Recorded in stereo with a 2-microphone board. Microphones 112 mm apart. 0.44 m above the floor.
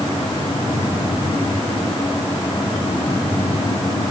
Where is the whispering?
I don't hear whispering.